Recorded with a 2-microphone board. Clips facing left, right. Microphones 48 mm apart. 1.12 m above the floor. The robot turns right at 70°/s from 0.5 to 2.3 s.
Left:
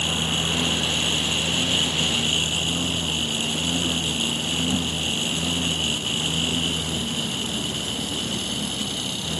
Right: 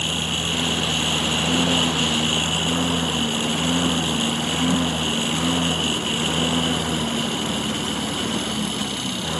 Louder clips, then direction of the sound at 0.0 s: Even; 175° right.